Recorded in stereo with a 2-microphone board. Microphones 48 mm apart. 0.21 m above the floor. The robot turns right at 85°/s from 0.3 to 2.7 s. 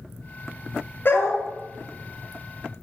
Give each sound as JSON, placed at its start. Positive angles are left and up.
{"t": 1.1, "sound": "a dog barking", "azimuth_deg": 50, "distance_m": 0.9}